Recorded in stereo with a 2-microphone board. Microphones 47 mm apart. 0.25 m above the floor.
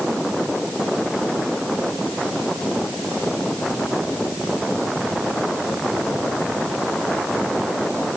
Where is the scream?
No scream in this recording.